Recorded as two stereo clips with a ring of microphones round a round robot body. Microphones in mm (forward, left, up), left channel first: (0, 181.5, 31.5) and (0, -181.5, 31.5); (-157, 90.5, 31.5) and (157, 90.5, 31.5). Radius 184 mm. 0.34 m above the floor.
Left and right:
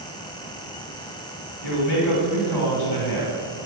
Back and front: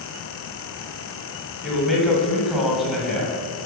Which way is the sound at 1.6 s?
90° left.